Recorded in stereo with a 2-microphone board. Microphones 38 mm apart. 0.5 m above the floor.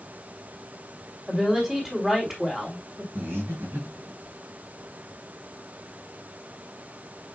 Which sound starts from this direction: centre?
A woman speaking, at 1.3 s.